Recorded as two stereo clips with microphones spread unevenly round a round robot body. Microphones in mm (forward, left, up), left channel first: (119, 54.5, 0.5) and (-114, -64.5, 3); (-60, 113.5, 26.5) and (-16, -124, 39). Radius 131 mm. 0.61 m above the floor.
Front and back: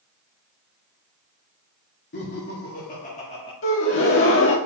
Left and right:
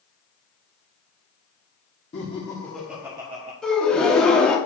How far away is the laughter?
About 1.5 m.